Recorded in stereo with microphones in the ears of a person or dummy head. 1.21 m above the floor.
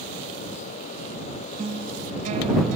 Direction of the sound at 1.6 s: 35° right (ahead or behind).